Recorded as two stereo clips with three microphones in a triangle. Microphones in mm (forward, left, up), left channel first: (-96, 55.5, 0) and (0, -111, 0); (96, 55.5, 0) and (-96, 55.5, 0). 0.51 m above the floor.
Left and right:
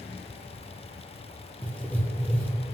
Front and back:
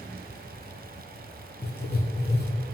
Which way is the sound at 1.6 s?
35° left.